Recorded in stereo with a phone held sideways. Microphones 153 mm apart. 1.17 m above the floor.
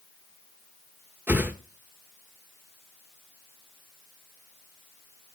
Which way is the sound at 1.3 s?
15° right (ahead or behind).